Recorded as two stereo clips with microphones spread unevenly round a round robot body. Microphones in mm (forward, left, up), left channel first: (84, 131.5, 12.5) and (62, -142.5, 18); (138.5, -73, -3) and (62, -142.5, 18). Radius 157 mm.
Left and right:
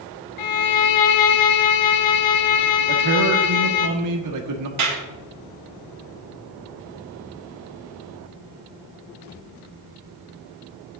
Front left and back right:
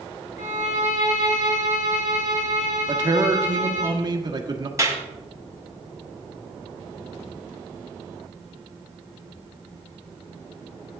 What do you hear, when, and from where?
0.4 s a violin: 80° left, 0.8 m
2.9 s a man speaking: 85° right, 1.7 m
4.8 s a clap: 75° right, 3 m